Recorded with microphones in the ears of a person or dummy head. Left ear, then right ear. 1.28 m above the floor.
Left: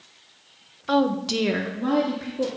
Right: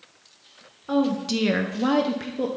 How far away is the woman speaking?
About 0.6 m.